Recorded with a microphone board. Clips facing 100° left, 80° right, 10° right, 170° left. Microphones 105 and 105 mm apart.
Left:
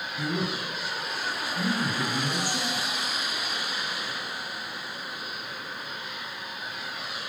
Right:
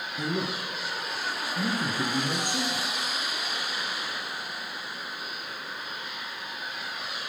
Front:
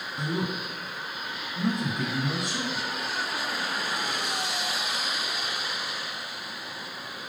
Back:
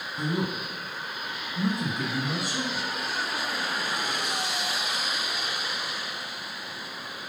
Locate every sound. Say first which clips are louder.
0.2 s a man speaking: even, back 1 dB; 105° right, 1.5 m